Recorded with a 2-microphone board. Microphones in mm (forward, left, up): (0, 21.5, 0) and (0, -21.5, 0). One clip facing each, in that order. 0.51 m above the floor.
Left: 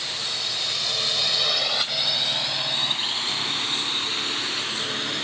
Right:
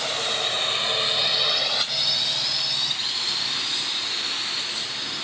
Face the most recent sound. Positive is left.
turn(degrees=45)  # may be behind; listen again after turning